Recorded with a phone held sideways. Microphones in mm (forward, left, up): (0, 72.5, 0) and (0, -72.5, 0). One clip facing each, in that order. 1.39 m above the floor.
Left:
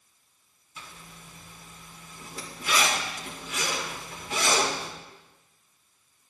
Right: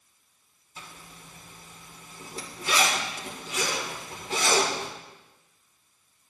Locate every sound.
0.8 s a zipper: 35° right (ahead or behind), 1.5 m